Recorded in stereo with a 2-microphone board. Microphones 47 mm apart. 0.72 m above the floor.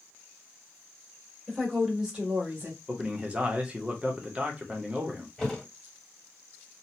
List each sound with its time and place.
1.5 s a woman speaking: 5° left (ahead or behind), 1.5 m; by 2.8 s 40° right (ahead or behind), 1.5 m
2.9 s a man speaking: 25° right (ahead or behind), 0.8 m
5.4 s a thud: 10° left (ahead or behind), 1.3 m